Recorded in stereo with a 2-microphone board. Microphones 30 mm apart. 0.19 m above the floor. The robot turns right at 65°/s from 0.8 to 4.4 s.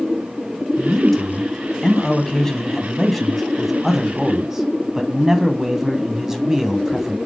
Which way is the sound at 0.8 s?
5° left (ahead or behind).